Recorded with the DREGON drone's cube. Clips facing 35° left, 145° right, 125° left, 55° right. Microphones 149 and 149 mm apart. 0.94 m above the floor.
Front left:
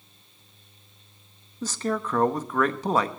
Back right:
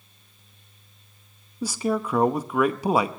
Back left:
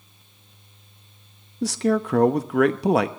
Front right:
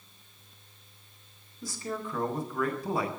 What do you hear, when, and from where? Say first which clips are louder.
1.6 s a man speaking: back right 3 dB, back left 14 dB; 135° left, 0.8 m